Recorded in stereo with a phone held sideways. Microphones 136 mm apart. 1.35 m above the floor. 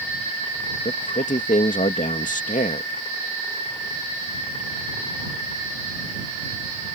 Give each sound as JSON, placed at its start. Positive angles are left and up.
{"t": 0.8, "sound": "a man speaking", "side_deg": 85}